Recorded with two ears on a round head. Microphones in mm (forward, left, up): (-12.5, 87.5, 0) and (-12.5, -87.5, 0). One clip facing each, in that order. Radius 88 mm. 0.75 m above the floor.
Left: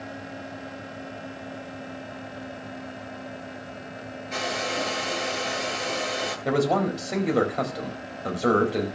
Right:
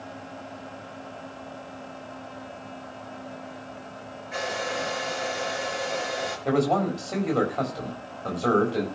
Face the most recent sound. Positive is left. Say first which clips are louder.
# even
turn(degrees=15)  # may be behind; listen again after turning